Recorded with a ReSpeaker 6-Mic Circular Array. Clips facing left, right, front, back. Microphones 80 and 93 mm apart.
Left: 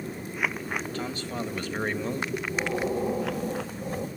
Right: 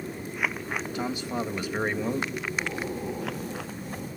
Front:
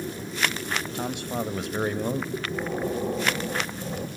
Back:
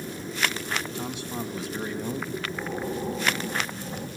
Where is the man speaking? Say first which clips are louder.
Right 2 dB, front 3 dB; 15° right, 2 m; by 2.2 s 10° right, 1.6 m.